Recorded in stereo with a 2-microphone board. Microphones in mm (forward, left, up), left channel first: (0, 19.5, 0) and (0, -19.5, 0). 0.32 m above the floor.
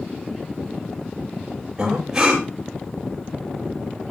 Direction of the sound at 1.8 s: 15° right (ahead or behind).